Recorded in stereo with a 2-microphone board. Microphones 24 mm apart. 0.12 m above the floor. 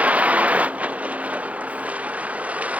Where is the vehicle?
80° right.